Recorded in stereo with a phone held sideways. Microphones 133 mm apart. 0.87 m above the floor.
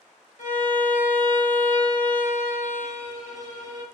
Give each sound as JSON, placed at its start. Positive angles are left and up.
{"t": 0.4, "sound": "a violin", "side_deg": 75, "distance_m": 0.7}